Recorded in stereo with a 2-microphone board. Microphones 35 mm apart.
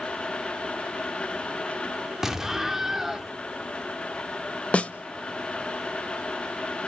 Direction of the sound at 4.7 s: 40° left (ahead or behind).